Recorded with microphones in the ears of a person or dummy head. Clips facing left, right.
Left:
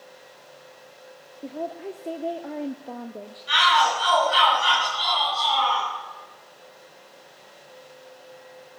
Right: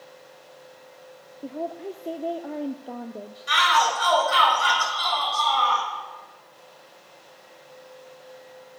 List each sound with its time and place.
1.4 s a woman speaking: centre (ahead or behind), 0.7 m
3.5 s a shout: 65° right (ahead or behind), 8 m